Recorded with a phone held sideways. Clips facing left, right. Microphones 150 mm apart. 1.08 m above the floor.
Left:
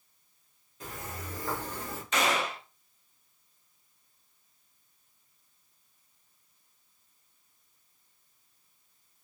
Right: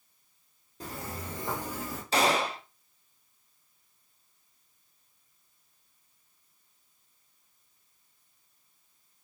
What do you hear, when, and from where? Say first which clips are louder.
0.8 s footsteps: right 2 dB; 35° right (ahead or behind), 1.5 m; by 2.0 s 5° left (ahead or behind), 1.2 m
2.1 s a gunshot: right 3 dB; 30° right (ahead or behind), 0.5 m